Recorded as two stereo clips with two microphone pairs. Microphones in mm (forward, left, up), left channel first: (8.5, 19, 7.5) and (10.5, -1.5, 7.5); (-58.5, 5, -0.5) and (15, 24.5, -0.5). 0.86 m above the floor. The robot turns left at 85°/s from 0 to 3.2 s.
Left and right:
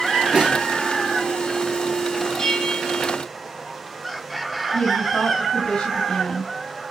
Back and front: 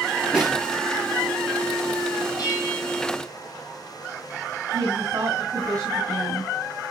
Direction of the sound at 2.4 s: 165° left.